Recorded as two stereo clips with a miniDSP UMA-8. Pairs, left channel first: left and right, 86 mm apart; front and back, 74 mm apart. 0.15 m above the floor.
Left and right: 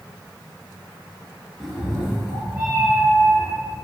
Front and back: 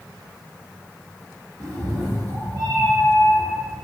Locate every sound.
1.6 s a cat meowing: 170° right, 1.2 m; by 3.7 s 150° right, 2 m